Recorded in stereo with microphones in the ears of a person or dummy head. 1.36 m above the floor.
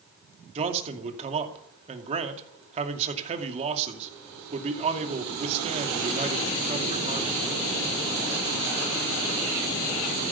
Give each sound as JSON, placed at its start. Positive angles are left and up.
{"t": 0.6, "sound": "a man speaking", "side_deg": -35, "distance_m": 2.5}